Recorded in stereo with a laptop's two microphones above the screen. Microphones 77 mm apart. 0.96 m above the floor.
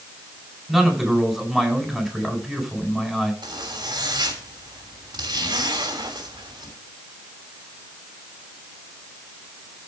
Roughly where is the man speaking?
Centre.